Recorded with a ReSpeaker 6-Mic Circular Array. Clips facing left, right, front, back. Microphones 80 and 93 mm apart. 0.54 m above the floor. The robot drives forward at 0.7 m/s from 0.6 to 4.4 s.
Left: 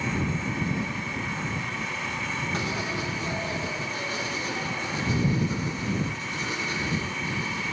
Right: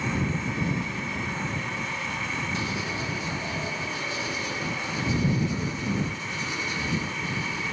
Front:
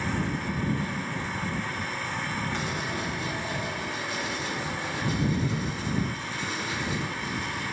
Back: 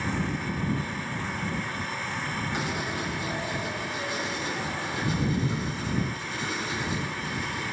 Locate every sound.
0.8 s a whoosh: 20° left, 3 m
2.5 s writing: 105° left, 3 m; by 7.6 s 125° left, 3.5 m